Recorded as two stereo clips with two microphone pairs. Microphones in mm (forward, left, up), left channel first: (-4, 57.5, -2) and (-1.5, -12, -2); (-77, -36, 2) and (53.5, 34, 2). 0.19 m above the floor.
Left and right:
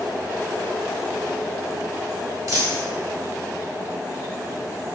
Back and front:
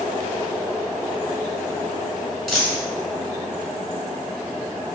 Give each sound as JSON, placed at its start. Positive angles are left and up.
{"t": 2.5, "sound": "a dropped coin", "azimuth_deg": -65, "distance_m": 0.9}